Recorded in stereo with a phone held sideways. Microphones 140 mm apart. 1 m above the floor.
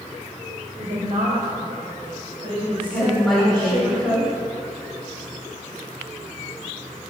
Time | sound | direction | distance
0.8 | a woman speaking | 65° right (ahead or behind) | 3.5 m
2.9 | a woman speaking | centre (ahead or behind) | 4 m